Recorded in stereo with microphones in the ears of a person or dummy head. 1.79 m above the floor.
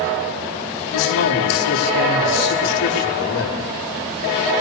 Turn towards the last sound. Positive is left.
turn(degrees=65)  # may be behind; listen again after turning